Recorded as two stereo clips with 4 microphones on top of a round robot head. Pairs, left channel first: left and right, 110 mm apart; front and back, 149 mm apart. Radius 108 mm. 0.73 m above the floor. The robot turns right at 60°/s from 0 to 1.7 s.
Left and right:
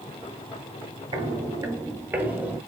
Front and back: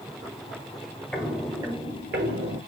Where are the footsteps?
85° right, 0.8 m; by 2.6 s 165° right, 1.4 m.